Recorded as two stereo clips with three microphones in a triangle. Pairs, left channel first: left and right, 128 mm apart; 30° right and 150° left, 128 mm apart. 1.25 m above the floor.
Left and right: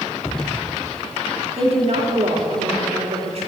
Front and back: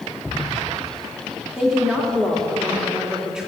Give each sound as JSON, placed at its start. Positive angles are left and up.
{"t": 1.6, "sound": "a woman speaking", "azimuth_deg": -125, "distance_m": 2.0}